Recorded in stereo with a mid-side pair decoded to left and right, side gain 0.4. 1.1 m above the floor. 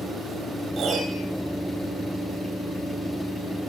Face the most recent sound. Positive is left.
turn(degrees=-60)